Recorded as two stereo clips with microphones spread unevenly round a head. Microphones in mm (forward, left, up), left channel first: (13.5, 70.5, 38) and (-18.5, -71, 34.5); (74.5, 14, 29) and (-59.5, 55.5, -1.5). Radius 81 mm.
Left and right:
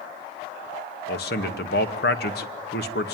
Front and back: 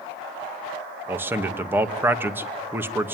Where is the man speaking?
90° left, 2 m.